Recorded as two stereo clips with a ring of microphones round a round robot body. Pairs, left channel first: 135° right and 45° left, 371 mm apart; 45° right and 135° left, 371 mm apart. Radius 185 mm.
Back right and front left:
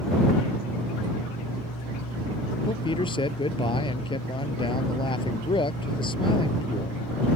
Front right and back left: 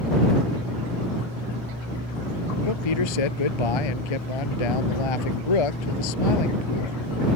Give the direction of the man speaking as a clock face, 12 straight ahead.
2 o'clock.